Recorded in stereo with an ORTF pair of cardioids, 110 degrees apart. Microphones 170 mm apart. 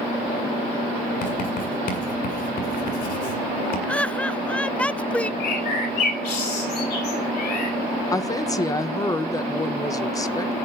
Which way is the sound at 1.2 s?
60° left.